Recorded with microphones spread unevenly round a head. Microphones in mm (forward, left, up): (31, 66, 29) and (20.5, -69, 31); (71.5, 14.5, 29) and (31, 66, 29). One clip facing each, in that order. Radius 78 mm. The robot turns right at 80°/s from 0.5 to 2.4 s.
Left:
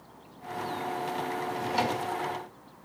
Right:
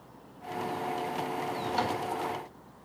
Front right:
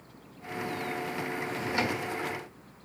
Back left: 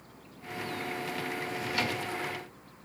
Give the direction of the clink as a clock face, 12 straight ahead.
No clink in this recording.